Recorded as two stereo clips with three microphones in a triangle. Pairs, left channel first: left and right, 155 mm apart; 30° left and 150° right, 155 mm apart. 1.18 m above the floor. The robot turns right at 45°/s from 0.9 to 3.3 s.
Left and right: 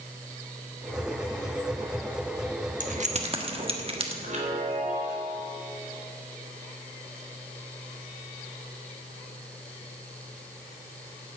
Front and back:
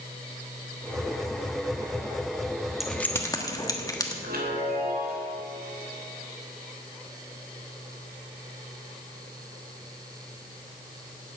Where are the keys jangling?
60° right, 1.3 m; by 4.1 s 40° right, 1.3 m.